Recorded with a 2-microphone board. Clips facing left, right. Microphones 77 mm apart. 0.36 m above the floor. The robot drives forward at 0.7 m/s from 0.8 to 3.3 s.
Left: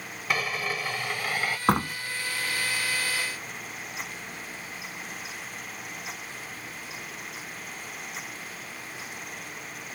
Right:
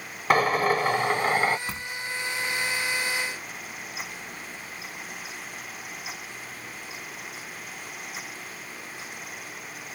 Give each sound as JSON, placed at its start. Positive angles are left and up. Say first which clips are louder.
{"t": 0.3, "sound": "a drill", "louder": "right 9 dB", "side_deg": -45}
{"t": 1.7, "sound": "a door slam", "louder": "left 12 dB", "side_deg": 60}